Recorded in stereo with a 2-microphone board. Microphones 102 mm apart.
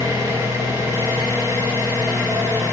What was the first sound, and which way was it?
An engine running, 25° right (ahead or behind).